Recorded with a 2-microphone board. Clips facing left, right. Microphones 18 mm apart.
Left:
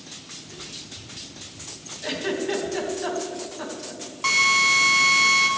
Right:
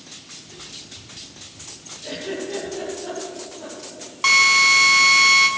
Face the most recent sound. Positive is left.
turn(degrees=-30)  # may be behind; listen again after turning